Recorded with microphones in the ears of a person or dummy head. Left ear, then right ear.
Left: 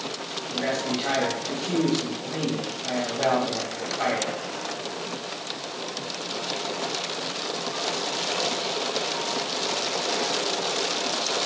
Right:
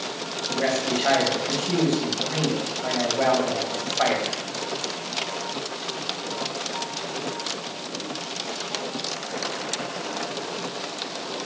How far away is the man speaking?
About 3 m.